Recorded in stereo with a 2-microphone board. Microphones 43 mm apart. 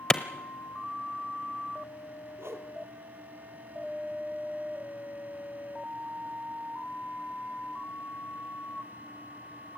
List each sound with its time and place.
0.1 s a clap: 20° left (ahead or behind), 1.1 m
2.4 s a whoosh: 85° right, 1.9 m